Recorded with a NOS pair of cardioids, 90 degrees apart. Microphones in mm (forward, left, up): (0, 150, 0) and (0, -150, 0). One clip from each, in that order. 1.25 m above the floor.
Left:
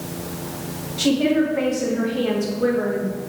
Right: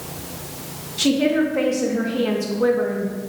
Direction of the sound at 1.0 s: 20° right.